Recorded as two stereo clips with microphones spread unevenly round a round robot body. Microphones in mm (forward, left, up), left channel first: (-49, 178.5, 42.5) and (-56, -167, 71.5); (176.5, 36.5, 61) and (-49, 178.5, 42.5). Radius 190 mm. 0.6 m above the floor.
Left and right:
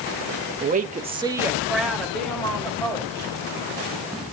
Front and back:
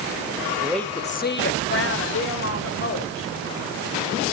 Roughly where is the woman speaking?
Behind right.